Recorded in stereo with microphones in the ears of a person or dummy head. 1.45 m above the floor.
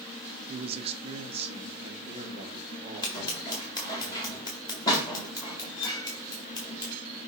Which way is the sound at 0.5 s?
30° right (ahead or behind).